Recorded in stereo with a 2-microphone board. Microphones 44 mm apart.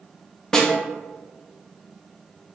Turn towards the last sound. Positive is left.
turn(degrees=15)  # may be behind; listen again after turning